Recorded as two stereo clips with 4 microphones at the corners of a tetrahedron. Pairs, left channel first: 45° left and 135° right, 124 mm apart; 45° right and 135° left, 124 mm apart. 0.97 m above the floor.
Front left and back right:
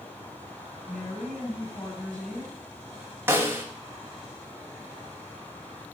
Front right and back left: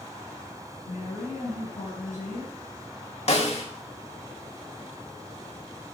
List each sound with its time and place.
0.9 s a woman speaking: 40° right, 5.5 m
3.3 s a snare drum: 65° right, 1.5 m